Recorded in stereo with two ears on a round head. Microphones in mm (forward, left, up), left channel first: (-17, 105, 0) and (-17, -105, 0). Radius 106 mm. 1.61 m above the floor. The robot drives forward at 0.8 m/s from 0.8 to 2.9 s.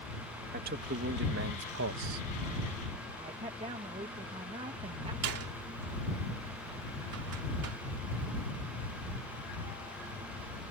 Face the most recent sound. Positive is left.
turn(degrees=-70)  # may be behind; listen again after turning